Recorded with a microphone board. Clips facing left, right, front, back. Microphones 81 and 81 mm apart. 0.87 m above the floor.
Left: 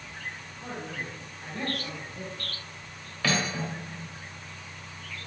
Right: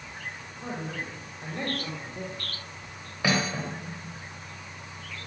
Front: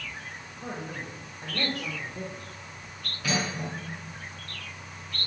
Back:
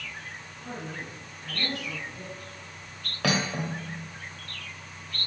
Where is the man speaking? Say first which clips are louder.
Right 2 dB, front 1 dB; 30° right, 5 m; by 2.5 s 45° right, 3 m.